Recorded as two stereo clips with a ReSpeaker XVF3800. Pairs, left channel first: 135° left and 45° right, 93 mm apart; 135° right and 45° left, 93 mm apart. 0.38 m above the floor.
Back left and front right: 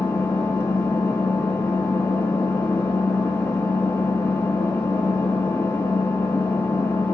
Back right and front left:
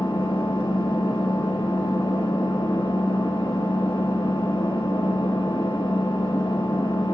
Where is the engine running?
160° right, 2.5 m.